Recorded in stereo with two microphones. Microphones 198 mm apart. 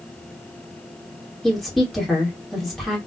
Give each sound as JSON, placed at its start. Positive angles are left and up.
{"t": 1.4, "sound": "a woman speaking", "side_deg": 0, "distance_m": 1.3}